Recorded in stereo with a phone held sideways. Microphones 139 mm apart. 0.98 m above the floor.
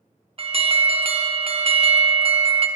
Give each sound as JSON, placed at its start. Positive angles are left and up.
{"t": 0.4, "sound": "an alarm", "side_deg": -45, "distance_m": 0.6}